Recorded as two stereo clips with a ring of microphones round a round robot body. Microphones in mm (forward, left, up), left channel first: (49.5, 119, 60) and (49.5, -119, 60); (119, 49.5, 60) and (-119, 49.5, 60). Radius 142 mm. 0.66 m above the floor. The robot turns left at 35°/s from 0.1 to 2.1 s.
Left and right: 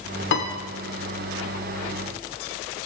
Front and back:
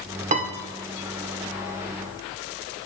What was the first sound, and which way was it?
A piano, 125° left.